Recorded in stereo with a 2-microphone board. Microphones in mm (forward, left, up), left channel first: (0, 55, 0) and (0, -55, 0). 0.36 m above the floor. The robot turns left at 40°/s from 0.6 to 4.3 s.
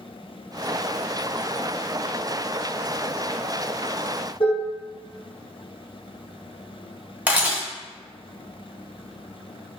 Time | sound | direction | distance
4.4 | dishes clattering | 60° left (ahead or behind) | 2.0 m
7.3 | a camera shutter | 15° right (ahead or behind) | 1.1 m